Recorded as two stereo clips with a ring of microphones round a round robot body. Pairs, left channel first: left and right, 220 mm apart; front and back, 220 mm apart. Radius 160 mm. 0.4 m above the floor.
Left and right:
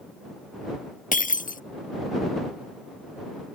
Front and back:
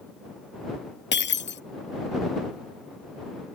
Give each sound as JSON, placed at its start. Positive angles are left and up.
{"t": 1.1, "sound": "breaking glass", "azimuth_deg": 35}